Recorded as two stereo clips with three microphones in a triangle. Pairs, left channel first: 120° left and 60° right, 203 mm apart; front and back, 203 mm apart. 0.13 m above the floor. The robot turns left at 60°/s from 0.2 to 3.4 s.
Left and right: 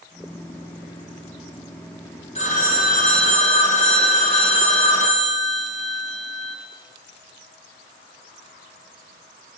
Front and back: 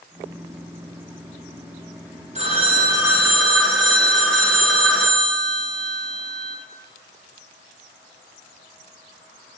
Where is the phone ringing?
150° left, 1.2 m; by 6.6 s 90° left, 1.2 m.